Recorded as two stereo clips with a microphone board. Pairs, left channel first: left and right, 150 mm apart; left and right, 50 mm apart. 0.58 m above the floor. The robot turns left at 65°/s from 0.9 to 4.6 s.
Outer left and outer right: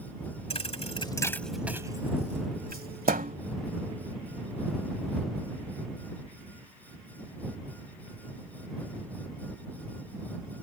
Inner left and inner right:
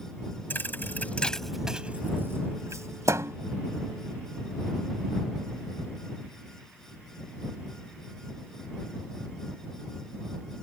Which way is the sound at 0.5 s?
40° left (ahead or behind).